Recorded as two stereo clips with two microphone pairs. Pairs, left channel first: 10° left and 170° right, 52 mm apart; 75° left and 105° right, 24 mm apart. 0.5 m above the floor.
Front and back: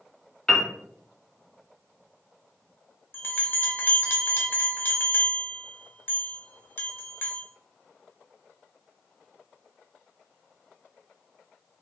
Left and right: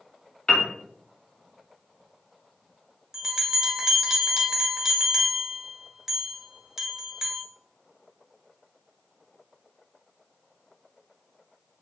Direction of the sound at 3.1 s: 35° right.